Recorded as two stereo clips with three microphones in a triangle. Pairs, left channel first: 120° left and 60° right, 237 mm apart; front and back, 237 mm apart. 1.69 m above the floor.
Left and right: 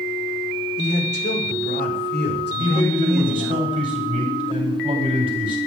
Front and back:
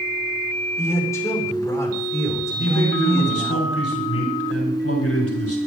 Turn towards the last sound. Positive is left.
turn(degrees=5)